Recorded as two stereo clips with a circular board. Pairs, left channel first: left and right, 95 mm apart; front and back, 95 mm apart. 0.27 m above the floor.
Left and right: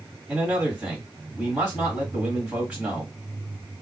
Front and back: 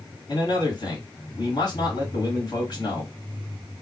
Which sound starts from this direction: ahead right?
A man speaking, at 0.3 s.